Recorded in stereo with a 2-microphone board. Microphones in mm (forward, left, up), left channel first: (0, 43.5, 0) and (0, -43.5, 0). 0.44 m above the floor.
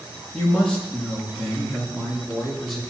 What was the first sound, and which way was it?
A man speaking, 15° left (ahead or behind).